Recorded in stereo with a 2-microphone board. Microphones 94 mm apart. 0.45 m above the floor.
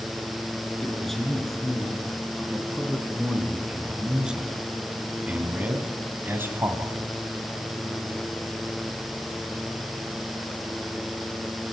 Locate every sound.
0.8 s a man speaking: 5° left (ahead or behind), 5.5 m; by 7.0 s 30° right (ahead or behind), 2.5 m